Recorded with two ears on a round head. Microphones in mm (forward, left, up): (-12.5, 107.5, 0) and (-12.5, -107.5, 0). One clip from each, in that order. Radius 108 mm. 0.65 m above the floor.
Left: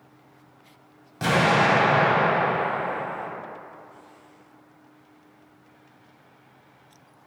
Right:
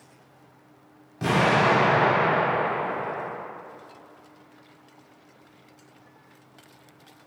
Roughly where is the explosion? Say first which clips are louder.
Left 1 dB; left.